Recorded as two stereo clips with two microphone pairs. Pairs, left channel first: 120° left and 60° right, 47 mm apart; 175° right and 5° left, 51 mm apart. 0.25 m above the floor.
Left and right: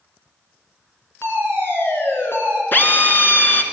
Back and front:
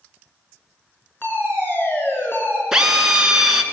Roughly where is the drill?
Left.